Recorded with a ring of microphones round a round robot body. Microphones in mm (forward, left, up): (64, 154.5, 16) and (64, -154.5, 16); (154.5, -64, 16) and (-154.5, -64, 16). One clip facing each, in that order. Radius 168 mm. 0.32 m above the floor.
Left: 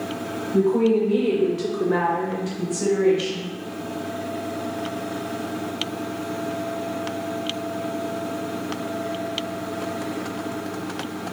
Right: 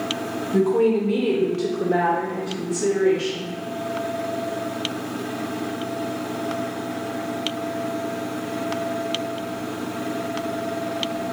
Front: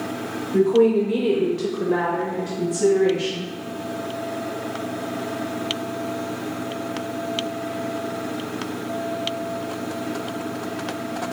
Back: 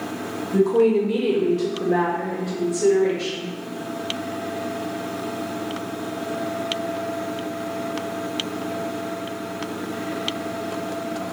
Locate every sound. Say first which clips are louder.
0.5 s a woman speaking: even, front 1 dB; 115° right, 1.1 m; by 3.5 s 60° left, 1.8 m